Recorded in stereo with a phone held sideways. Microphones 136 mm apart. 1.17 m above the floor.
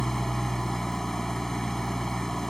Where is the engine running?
5° left (ahead or behind).